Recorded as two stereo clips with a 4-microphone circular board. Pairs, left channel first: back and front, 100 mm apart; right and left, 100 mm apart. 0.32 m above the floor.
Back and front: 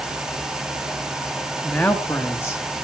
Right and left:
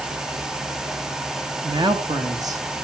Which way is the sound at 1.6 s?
100° left.